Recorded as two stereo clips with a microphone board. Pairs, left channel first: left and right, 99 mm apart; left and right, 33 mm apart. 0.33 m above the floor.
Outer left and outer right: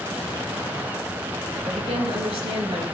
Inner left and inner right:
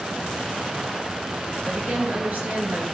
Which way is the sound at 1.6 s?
80° right.